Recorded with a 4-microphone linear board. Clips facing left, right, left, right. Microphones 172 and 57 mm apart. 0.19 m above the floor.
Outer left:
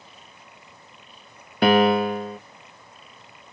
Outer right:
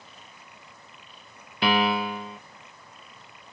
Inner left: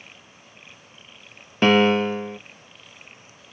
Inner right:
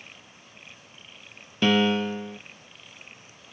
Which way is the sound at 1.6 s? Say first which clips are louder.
Outer left 7 dB, inner left 5 dB; 50° left (ahead or behind).